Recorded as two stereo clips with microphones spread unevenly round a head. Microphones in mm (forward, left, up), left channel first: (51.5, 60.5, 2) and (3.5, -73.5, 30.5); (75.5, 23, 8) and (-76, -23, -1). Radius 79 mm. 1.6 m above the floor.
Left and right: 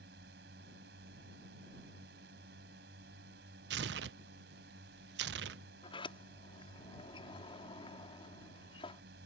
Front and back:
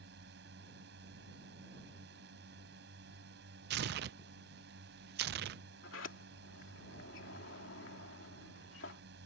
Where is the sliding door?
15° left.